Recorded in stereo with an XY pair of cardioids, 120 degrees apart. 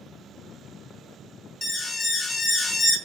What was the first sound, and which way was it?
An alarm, 25° left.